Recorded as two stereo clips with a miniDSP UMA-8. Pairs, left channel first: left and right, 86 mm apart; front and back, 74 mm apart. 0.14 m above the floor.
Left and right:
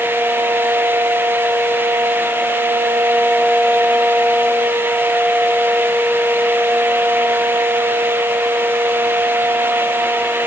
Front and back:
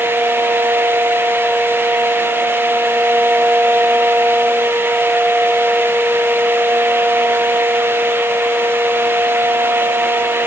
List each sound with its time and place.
Only background noise.